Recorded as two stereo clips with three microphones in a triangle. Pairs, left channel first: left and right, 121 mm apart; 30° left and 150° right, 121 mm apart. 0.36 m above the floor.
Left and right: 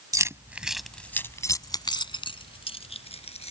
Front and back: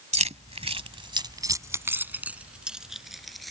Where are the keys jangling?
150° right; by 3.5 s 120° left.